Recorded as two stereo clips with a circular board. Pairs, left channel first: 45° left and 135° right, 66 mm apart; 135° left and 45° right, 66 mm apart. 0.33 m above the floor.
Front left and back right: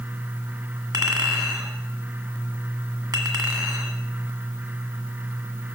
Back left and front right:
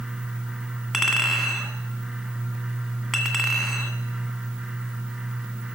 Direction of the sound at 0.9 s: 135° right.